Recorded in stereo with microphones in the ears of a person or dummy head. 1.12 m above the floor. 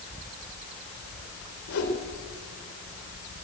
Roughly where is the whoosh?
Left.